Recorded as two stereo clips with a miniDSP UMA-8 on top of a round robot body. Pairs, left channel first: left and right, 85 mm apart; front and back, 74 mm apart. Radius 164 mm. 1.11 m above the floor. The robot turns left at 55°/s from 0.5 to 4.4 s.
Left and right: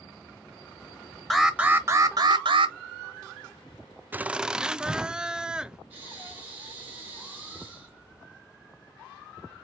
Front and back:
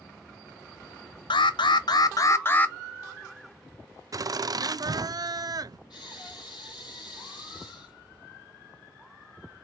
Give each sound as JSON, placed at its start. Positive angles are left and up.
{"t": 1.3, "sound": "an alarm", "azimuth_deg": 0, "distance_m": 0.7}
{"t": 4.1, "sound": "laughter", "azimuth_deg": -155, "distance_m": 0.5}
{"t": 5.9, "sound": "breathing", "azimuth_deg": -15, "distance_m": 3.0}